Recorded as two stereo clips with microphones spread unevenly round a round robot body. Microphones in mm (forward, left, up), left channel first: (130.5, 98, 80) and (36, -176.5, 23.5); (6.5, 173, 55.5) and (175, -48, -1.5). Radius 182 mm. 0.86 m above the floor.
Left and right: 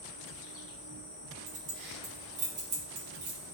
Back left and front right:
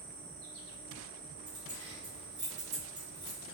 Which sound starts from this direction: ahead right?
An insect, at 0.0 s.